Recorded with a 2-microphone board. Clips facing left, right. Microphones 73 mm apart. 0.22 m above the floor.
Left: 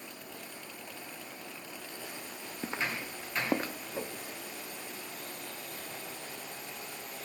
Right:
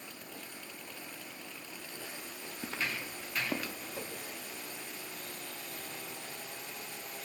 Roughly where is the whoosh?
Left.